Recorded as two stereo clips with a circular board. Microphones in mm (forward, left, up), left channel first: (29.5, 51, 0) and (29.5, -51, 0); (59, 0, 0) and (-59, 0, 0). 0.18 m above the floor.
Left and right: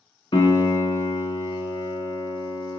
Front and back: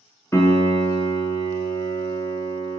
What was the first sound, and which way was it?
A piano, 65° left.